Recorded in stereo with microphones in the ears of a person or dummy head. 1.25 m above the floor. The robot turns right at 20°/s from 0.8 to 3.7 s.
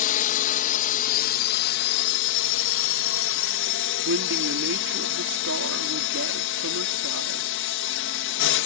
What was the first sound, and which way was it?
A drone, 45° left.